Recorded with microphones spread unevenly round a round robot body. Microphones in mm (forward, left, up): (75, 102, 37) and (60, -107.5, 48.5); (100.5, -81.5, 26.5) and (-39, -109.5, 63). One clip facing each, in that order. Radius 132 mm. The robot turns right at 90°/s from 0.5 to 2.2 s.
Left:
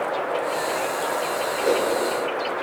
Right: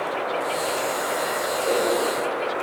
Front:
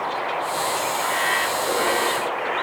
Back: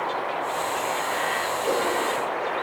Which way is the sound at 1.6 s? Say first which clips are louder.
Left 2 dB, even; 110° left.